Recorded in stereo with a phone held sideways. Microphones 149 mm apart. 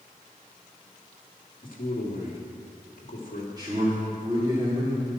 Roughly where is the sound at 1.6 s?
Left.